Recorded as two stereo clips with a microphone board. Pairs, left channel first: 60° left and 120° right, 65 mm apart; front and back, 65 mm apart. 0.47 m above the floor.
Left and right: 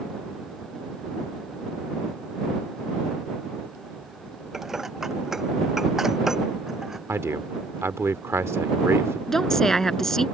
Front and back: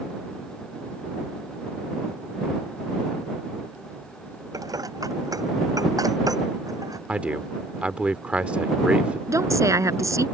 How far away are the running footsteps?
I don't hear running footsteps.